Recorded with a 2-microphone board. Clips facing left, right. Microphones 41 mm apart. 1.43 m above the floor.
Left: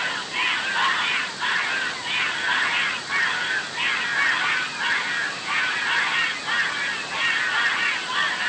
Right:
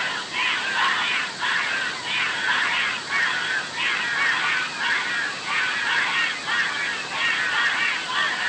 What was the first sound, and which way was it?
Only background noise.